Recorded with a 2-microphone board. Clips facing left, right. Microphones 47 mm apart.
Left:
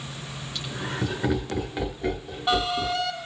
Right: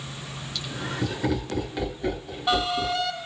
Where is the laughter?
30° left (ahead or behind), 1.8 m; by 3.1 s centre (ahead or behind), 1.7 m.